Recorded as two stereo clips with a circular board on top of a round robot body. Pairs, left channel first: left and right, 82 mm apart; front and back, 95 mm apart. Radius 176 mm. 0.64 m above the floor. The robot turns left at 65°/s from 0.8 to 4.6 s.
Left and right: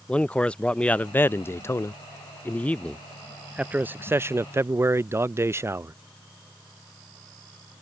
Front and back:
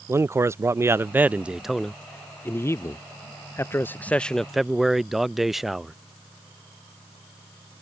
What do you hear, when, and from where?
0.1 s a man speaking: 155° left; by 6.0 s 95° right